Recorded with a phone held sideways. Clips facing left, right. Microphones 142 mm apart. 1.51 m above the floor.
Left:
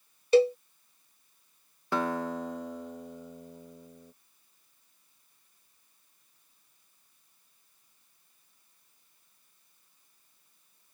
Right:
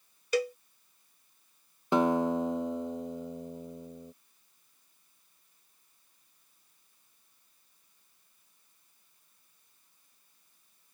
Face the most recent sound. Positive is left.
turn(degrees=-20)  # may be behind; listen again after turning